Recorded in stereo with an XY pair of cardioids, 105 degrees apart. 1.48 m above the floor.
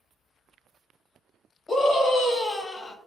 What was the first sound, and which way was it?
A scream, 30° left.